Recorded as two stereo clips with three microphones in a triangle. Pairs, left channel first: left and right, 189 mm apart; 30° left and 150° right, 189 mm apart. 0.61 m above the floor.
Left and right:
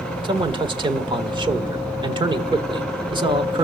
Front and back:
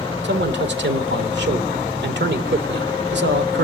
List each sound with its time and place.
0.2 s a man speaking: 155° right, 1.6 m